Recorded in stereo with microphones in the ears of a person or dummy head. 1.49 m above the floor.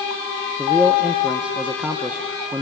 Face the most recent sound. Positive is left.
turn(degrees=-5)  # may be behind; listen again after turning